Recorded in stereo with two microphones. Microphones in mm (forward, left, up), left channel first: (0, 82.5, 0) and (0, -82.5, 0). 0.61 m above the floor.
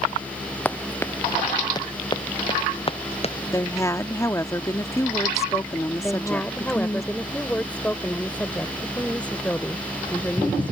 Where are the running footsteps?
10° left (ahead or behind); by 3.4 s 40° left (ahead or behind).